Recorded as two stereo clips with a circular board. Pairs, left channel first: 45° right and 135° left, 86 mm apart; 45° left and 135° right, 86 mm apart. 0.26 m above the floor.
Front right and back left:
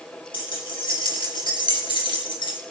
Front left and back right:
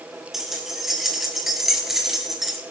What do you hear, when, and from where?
0.3 s keys jangling: 50° right, 3.5 m